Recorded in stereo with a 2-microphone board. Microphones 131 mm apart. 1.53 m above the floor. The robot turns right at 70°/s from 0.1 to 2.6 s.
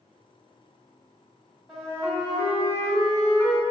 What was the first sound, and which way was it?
A flute, 5° right.